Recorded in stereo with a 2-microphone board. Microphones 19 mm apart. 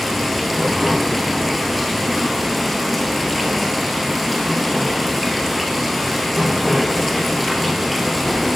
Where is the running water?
Centre (ahead or behind), 1.5 m.